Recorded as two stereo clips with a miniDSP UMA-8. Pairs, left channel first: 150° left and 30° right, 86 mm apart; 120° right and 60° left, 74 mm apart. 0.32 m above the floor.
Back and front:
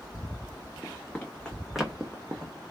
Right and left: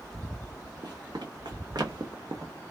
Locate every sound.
0.8 s running footsteps: 85° left, 1.1 m; by 2.5 s 20° left, 0.6 m